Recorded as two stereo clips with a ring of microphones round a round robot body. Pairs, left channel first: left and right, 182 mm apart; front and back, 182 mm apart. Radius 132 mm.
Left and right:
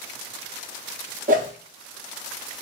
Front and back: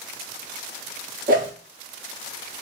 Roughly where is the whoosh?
Behind right.